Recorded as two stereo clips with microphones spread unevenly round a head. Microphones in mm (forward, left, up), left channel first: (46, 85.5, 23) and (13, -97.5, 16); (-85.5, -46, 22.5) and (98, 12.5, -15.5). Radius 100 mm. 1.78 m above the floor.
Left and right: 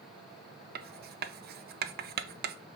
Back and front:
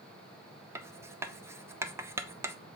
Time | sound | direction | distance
0.8 | writing | 65° right | 0.7 m